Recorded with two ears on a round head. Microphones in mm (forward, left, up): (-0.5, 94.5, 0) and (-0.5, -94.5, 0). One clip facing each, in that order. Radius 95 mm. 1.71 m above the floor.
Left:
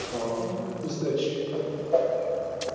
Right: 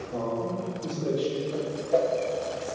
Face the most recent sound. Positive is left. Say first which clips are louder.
# left 1 dB
turn(degrees=-20)  # may be behind; listen again after turning